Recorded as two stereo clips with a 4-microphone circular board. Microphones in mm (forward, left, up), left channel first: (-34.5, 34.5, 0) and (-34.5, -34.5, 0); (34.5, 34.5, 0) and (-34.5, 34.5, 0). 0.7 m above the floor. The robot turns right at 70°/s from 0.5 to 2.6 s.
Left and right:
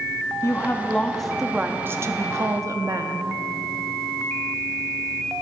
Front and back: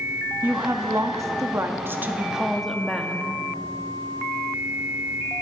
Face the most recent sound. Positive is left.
turn(degrees=-90)